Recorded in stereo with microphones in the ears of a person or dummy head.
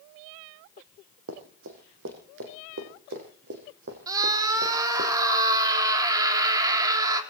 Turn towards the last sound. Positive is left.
turn(degrees=-25)  # may be behind; listen again after turning